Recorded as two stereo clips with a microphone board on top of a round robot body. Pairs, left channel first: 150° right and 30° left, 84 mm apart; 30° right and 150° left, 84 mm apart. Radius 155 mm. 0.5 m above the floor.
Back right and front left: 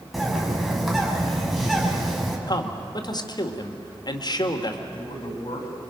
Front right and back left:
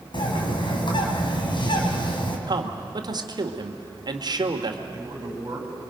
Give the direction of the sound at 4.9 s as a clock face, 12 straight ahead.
5 o'clock.